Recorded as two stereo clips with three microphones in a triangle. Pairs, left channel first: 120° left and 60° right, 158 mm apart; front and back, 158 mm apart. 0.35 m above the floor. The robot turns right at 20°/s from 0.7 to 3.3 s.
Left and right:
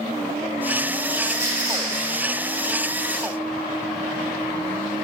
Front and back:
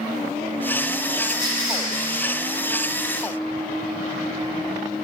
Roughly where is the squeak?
Left.